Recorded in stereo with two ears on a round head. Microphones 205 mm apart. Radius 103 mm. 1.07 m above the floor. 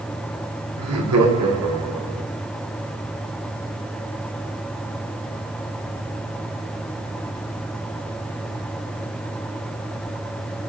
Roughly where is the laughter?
Right.